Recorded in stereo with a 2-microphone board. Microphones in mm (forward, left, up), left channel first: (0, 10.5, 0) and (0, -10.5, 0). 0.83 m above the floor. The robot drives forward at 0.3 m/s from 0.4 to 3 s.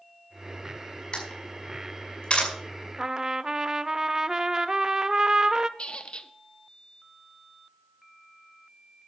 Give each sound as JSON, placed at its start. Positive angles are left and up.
{"t": 1.1, "sound": "a camera shutter", "side_deg": 50, "distance_m": 5.0}
{"t": 3.0, "sound": "a trumpet", "side_deg": -30, "distance_m": 0.5}
{"t": 5.8, "sound": "a squeak", "side_deg": 55, "distance_m": 0.8}